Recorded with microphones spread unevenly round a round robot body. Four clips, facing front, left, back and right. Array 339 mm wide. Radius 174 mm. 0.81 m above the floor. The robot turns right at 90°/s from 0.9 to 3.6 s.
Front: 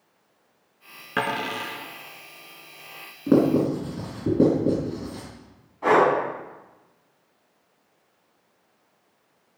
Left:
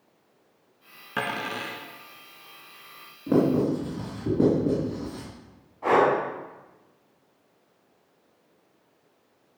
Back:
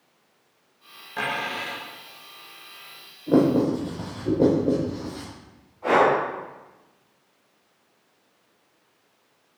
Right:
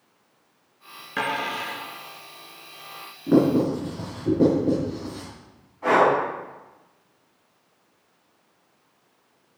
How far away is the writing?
About 5 m.